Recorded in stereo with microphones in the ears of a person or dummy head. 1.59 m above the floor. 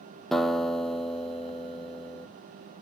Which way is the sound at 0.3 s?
Centre (ahead or behind).